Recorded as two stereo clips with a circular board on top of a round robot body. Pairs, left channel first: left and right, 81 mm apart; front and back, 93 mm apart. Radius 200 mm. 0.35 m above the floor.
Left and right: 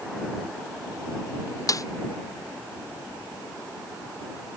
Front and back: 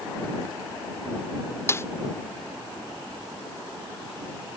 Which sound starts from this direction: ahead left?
A snare drum, at 1.7 s.